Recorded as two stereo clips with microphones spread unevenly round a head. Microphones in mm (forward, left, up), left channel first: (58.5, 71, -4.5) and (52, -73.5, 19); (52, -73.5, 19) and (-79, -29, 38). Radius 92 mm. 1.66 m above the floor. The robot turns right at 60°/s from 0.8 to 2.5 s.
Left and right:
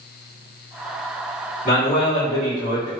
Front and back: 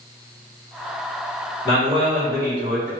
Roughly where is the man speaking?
Ahead left.